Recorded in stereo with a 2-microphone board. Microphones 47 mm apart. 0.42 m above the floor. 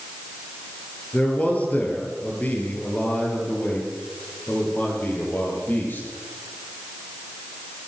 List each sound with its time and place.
1.1 s a man speaking: 30° left (ahead or behind), 8.5 m; by 6.1 s 40° left (ahead or behind), 12.5 m